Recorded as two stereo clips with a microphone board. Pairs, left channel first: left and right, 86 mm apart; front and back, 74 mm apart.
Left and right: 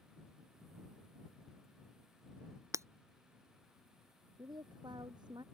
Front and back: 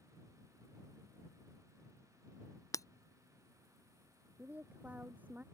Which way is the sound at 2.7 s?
40° right.